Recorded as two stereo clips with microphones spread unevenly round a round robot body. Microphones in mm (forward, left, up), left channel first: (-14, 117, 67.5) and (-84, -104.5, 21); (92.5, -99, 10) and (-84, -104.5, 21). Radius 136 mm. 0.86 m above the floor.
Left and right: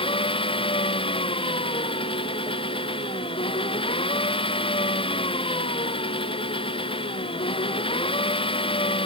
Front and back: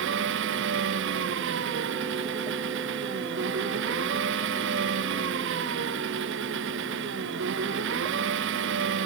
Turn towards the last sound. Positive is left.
turn(degrees=140)